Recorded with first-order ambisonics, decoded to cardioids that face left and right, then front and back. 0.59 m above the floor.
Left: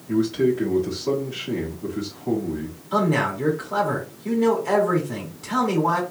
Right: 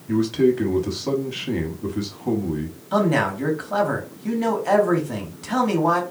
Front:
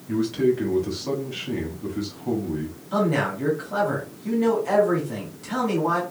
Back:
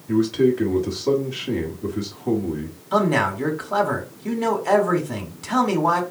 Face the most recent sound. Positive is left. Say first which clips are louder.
# right 1 dB, back 4 dB
turn(degrees=-150)